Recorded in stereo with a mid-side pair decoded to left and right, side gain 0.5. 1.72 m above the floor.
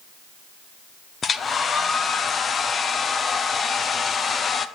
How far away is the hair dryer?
About 0.6 m.